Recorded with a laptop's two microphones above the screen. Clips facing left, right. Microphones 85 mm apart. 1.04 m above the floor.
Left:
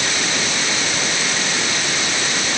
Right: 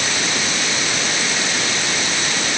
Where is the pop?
No pop in this recording.